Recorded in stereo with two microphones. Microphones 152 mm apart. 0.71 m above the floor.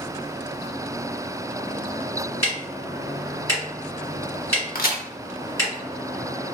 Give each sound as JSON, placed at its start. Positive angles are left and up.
{"t": 2.4, "sound": "ticking", "side_deg": 20, "distance_m": 1.6}
{"t": 4.8, "sound": "a crack", "side_deg": 75, "distance_m": 0.6}